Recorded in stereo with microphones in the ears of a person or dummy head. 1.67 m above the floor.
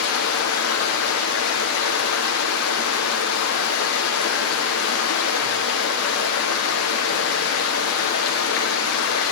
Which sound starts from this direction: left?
Running water, at 0.0 s.